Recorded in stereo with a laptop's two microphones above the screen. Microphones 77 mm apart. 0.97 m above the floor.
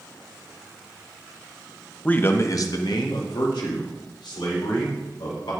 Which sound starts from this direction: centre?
A man speaking, at 2.0 s.